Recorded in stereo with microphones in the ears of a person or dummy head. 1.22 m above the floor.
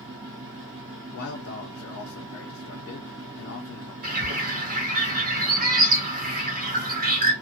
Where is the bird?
45° right (ahead or behind), 0.8 m.